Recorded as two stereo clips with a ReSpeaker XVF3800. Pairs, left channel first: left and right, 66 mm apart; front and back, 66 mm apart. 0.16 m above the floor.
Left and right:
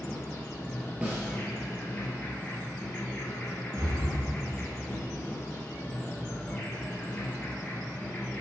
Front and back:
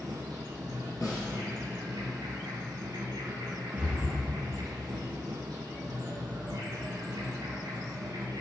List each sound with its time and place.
0.0 s an insect: 155° left, 2.5 m
1.0 s a snare drum: 20° right, 3.5 m
3.8 s breathing: 105° right, 2.5 m